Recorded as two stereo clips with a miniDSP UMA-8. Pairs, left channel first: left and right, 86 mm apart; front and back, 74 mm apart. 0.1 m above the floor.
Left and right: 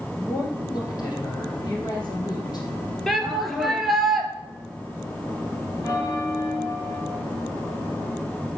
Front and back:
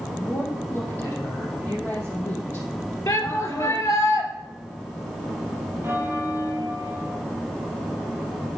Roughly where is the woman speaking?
Ahead left.